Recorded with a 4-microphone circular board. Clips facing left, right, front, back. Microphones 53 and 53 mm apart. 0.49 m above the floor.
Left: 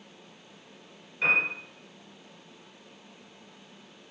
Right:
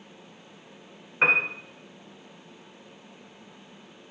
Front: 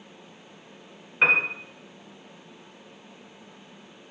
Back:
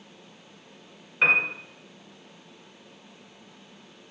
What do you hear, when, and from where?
1.2 s a piano: 70° right, 1.8 m